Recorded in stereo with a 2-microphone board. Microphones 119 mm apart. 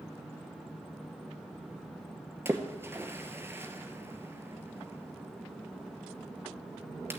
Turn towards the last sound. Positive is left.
turn(degrees=-20)  # may be behind; listen again after turning